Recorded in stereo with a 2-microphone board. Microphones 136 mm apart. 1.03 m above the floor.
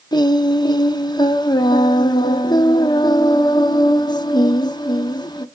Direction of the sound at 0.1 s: 30° left (ahead or behind).